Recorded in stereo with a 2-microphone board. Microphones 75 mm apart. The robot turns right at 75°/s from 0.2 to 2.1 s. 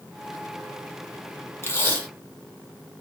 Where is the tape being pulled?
120° left, 0.8 m; by 2.1 s 155° left, 0.8 m.